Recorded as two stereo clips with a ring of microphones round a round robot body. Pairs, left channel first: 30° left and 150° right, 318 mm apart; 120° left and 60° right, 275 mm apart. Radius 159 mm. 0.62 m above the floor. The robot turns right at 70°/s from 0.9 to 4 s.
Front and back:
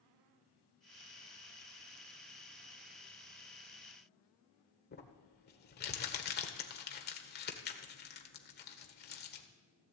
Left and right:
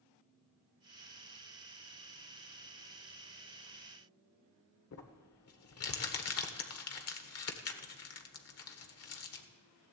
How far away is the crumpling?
About 1.6 m.